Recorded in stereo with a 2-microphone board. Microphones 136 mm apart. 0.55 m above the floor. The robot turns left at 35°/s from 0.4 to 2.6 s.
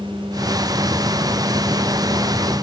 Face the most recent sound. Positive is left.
No sound to turn to.